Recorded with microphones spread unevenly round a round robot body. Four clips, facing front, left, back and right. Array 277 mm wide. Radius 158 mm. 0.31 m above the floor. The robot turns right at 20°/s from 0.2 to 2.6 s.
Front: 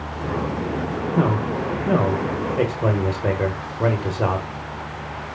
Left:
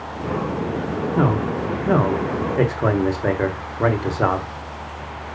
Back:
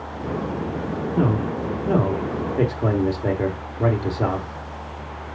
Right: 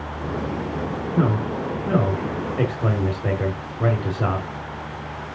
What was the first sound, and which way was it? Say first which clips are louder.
A man speaking: left 2 dB, front 1 dB; 40° left.